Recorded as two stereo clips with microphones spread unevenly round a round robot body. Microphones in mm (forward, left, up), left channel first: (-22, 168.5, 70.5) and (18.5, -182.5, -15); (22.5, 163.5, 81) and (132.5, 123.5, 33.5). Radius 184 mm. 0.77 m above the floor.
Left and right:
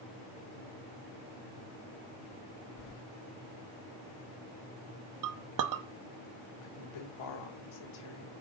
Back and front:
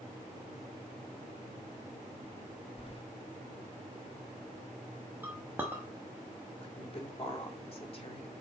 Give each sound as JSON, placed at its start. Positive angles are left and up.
{"t": 2.8, "sound": "keys jangling", "azimuth_deg": 105, "distance_m": 1.1}
{"t": 5.2, "sound": "a clink", "azimuth_deg": -80, "distance_m": 0.8}
{"t": 6.6, "sound": "a woman speaking", "azimuth_deg": 110, "distance_m": 2.5}